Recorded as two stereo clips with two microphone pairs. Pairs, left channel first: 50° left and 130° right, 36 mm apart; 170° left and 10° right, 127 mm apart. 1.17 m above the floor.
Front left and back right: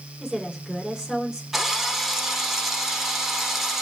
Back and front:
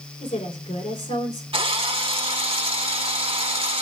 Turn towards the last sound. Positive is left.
turn(degrees=-50)